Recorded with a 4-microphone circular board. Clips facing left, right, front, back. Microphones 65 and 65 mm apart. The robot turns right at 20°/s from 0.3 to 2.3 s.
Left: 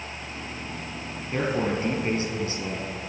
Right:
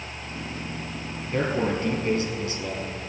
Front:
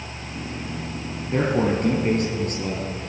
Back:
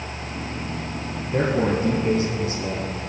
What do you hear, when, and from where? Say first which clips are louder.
1.3 s a man speaking: right 1 dB, even; 15° left, 3.5 m; by 2.9 s 35° left, 3.5 m